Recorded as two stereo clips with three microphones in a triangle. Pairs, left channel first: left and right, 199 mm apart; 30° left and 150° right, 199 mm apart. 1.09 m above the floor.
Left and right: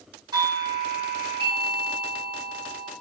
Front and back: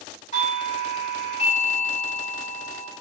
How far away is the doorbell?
About 3 m.